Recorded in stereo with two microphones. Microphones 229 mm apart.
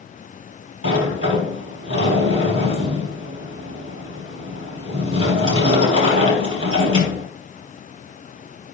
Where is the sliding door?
70° right (ahead or behind), 3.5 m.